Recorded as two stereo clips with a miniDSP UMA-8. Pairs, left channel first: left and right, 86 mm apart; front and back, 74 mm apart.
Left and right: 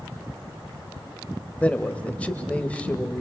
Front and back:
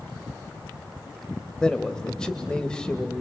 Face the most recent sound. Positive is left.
turn(degrees=55)